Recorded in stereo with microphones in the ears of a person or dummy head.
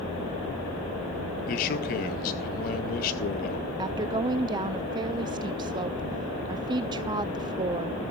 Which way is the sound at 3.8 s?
25° right (ahead or behind).